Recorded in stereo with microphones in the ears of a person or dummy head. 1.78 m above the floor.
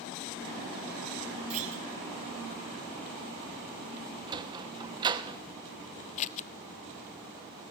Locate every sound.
1.5 s a clunk: 45° right (ahead or behind), 3.5 m
4.3 s a sliding door: 30° right (ahead or behind), 1.0 m
6.2 s scissors: 35° left (ahead or behind), 0.8 m